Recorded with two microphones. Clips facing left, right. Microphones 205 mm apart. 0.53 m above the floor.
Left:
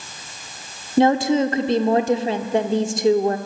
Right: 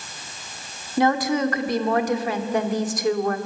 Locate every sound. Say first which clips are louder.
1.0 s a woman speaking: left 4 dB; 25° left (ahead or behind), 1.3 m